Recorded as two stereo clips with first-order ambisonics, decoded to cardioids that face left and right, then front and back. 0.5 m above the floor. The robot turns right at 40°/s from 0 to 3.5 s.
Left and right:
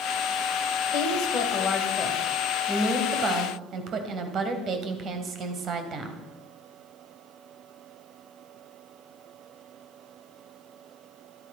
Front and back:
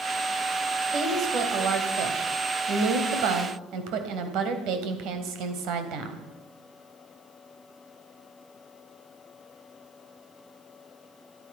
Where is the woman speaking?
110° left, 3 m; by 6.2 s 145° right, 3 m.